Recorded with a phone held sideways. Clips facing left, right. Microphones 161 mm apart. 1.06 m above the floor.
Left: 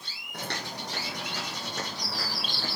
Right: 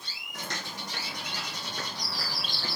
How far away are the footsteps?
About 2 m.